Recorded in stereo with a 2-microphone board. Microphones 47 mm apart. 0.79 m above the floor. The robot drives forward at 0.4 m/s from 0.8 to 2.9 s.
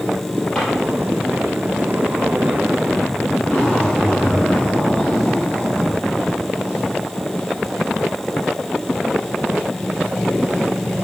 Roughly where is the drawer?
Centre.